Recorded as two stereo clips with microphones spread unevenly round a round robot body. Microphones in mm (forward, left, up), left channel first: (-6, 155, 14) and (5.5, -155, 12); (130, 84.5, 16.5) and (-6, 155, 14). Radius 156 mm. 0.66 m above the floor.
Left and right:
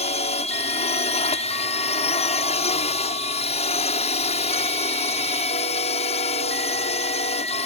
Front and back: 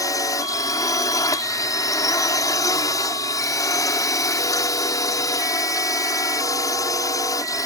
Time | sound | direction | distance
0.0 | a drone | 30° left | ?